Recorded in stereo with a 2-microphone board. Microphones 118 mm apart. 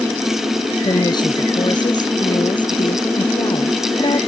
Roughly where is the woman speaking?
Left.